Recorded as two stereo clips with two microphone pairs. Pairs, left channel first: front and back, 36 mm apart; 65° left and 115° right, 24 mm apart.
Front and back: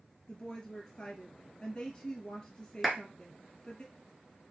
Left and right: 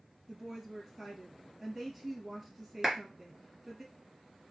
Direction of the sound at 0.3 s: 45° right.